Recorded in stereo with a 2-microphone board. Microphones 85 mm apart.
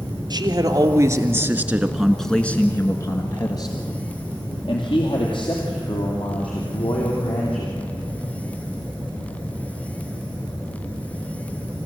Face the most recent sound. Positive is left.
turn(degrees=70)  # may be behind; listen again after turning